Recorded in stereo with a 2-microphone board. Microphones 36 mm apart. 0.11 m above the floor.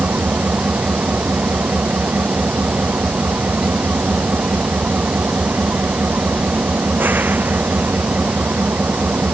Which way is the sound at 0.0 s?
55° right (ahead or behind).